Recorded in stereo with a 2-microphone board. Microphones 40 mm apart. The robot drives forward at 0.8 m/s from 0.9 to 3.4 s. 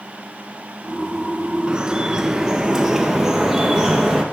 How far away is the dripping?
About 0.6 m.